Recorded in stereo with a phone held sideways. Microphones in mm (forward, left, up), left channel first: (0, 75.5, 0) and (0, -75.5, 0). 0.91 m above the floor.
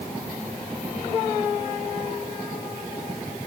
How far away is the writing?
I don't hear writing.